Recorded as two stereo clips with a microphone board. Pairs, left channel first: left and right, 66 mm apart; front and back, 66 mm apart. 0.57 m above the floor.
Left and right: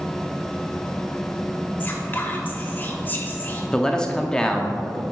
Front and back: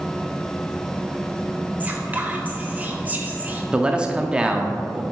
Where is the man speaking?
145° left, 0.6 m.